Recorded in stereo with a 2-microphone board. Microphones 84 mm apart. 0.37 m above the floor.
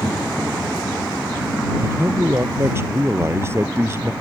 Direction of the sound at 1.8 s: 30° right (ahead or behind).